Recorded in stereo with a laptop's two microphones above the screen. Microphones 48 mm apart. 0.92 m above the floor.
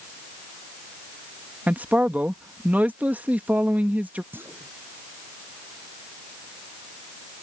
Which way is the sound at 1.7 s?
30° right (ahead or behind).